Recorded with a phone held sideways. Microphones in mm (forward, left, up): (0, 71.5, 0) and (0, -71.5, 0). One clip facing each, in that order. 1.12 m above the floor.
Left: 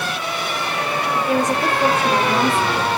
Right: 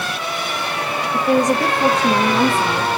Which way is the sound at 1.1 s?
80° right.